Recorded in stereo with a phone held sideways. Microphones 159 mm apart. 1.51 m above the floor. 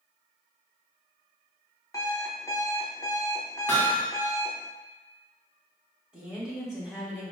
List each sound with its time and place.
1.9 s an alarm clock: 20° left (ahead or behind), 0.7 m
3.7 s hammering: 15° left (ahead or behind), 1.1 m
6.1 s a woman speaking: 5° right (ahead or behind), 1.5 m